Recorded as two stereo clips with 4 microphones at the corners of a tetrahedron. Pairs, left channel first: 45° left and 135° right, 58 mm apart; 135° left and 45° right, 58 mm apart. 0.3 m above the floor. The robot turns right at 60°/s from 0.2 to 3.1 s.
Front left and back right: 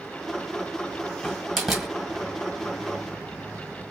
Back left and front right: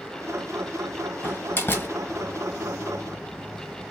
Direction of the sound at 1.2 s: 110° left.